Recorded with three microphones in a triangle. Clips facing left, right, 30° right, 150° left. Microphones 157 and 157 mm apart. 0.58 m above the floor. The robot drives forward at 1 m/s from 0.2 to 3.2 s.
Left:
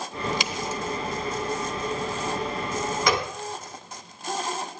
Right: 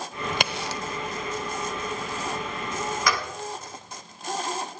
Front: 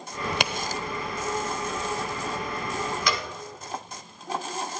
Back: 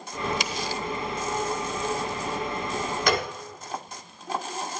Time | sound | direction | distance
0.3 | a crack | 55° right | 0.9 m
3.1 | a gunshot | 145° left | 1.1 m